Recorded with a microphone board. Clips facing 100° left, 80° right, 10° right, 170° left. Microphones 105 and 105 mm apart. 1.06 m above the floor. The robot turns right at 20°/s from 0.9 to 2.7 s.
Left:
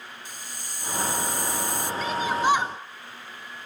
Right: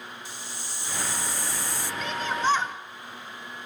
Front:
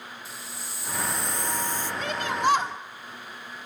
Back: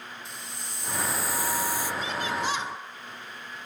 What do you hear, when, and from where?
0.2 s a hiss: 75° left, 0.7 m; by 1.9 s 95° left, 0.7 m
2.0 s a shout: 15° left, 2 m; by 2.7 s 25° left, 2 m